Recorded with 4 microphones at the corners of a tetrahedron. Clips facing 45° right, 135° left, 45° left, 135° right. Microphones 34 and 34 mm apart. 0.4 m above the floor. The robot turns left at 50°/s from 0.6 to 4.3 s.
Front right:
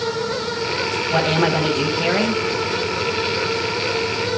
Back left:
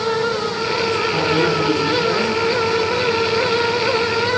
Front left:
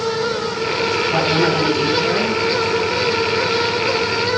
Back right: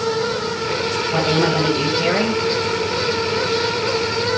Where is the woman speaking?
35° right, 2 m; by 2.4 s 100° right, 2 m.